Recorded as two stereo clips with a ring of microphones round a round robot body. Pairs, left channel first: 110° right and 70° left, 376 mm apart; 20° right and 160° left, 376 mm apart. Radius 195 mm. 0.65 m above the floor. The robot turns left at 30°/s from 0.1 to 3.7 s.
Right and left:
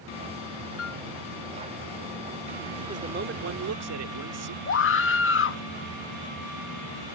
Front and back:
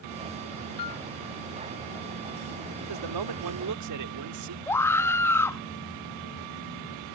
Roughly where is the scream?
Right.